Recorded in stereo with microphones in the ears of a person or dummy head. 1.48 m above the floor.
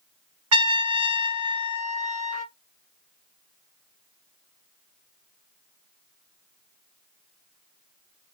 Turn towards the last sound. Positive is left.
turn(degrees=-70)  # may be behind; listen again after turning